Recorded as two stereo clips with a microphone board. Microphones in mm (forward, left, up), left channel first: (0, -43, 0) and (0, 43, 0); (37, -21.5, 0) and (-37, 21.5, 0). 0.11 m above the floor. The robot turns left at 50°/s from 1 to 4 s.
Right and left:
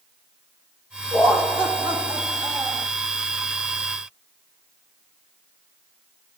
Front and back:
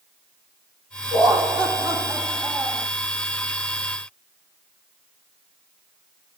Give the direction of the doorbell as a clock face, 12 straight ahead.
No doorbell in this recording.